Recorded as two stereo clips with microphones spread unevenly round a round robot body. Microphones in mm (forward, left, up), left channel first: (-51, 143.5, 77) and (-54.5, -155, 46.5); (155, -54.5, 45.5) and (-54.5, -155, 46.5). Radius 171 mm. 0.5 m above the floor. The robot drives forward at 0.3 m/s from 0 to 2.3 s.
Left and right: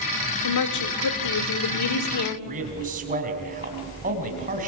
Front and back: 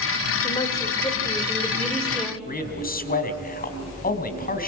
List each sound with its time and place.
0.4 s a woman speaking: 100° left, 1.8 m; by 2.4 s 115° left, 1.9 m
2.5 s a man speaking: 25° right, 4 m